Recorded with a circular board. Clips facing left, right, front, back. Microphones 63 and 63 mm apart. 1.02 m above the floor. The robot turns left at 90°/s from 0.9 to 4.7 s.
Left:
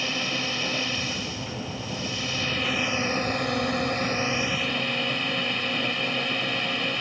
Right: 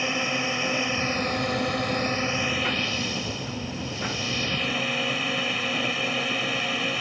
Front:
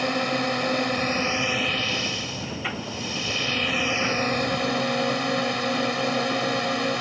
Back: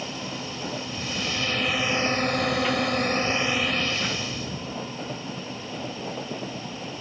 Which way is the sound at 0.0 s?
20° right.